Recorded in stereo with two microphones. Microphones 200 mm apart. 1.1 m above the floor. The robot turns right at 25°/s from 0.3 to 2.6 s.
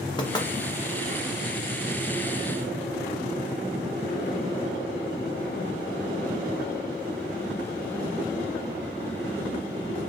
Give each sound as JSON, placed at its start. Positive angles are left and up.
{"t": 0.2, "sound": "knocking", "side_deg": 25, "distance_m": 0.6}